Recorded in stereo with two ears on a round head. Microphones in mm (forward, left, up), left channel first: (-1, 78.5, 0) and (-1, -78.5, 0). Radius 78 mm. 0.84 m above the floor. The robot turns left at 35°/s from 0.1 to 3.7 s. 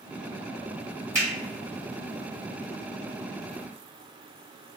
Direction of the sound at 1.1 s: 15° right (ahead or behind).